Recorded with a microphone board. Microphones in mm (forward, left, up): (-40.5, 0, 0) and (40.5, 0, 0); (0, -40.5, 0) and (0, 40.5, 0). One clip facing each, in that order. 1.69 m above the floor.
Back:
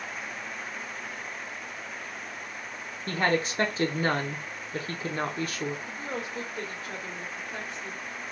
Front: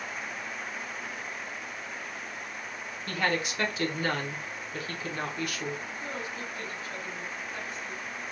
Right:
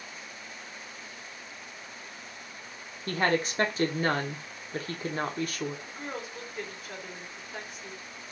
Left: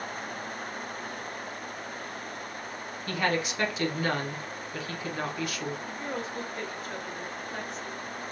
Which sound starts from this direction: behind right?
A woman speaking, at 3.1 s.